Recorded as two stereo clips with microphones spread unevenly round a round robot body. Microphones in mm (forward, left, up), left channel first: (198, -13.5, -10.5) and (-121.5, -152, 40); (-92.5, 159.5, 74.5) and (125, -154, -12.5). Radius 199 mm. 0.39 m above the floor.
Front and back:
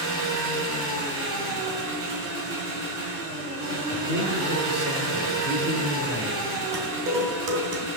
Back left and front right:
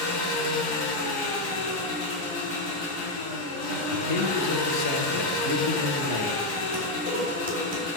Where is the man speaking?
145° left, 1.0 m.